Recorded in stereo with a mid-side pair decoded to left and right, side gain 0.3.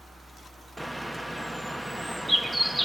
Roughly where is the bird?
Ahead.